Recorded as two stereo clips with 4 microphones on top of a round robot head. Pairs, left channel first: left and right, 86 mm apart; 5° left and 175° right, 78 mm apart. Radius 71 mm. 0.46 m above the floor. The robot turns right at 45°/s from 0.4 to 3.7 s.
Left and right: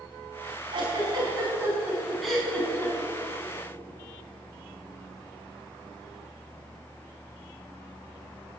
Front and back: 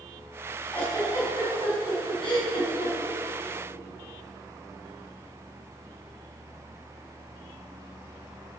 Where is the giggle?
70° right, 6 m; by 2.9 s 30° left, 6 m.